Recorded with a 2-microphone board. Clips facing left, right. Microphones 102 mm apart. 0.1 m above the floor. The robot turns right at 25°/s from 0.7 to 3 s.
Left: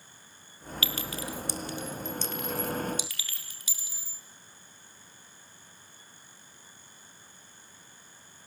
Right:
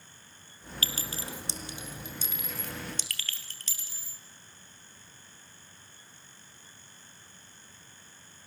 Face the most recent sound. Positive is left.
turn(degrees=10)  # may be behind; listen again after turning